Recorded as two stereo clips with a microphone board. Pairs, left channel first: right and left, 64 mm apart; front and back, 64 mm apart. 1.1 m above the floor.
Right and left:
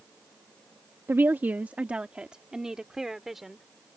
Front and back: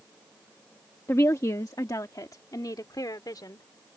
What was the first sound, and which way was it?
A woman speaking, 40° left.